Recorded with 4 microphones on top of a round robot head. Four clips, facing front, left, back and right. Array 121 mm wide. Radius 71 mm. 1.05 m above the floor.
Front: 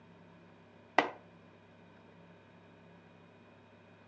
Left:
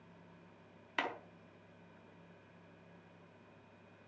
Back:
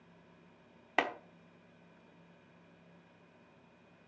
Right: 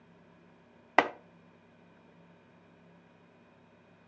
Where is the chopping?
80° right, 1.0 m.